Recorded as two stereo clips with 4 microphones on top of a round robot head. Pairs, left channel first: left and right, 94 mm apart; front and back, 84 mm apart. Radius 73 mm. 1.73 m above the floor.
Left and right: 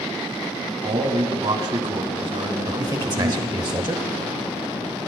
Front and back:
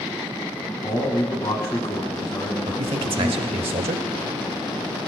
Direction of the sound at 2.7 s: 145° right.